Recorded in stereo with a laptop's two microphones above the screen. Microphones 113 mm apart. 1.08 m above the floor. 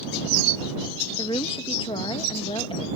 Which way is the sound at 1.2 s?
50° left (ahead or behind).